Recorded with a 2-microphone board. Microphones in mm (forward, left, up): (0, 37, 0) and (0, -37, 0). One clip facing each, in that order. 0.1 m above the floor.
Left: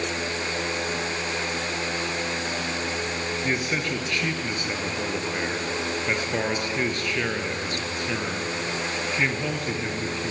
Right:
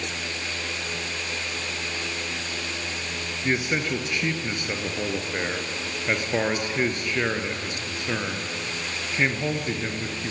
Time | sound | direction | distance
3.4 | a man speaking | 15° right (ahead or behind) | 2 m